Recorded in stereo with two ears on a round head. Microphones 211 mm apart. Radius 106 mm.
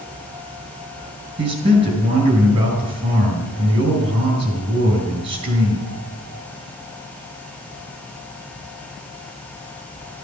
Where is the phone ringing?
I don't hear a phone ringing.